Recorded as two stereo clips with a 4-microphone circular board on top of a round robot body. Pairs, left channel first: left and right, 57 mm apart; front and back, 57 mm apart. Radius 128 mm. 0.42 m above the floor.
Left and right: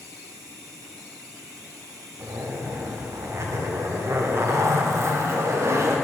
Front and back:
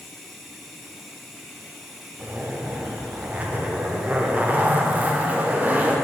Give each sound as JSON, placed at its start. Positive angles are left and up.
{"t": 0.0, "sound": "running water", "azimuth_deg": -90, "distance_m": 0.9}
{"t": 2.2, "sound": "a zipper", "azimuth_deg": -120, "distance_m": 0.8}